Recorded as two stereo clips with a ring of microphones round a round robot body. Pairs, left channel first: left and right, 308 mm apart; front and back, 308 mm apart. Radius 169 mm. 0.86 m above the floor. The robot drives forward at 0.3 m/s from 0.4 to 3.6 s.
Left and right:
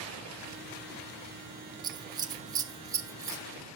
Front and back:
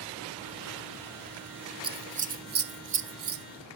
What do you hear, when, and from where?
1.8 s scissors: 140° right, 0.7 m; by 3.4 s 165° right, 0.9 m